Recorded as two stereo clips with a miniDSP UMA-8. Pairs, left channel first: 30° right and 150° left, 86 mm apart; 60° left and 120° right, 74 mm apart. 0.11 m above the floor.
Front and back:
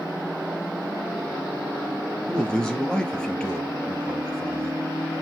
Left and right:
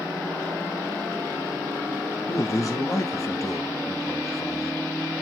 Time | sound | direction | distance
2.3 | a man speaking | 45° left | 2.5 m